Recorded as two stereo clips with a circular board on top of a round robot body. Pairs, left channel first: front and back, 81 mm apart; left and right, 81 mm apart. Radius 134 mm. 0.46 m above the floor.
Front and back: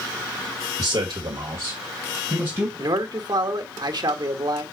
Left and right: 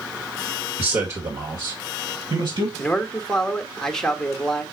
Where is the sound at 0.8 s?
150° right, 2 m; by 2.7 s 115° right, 4 m.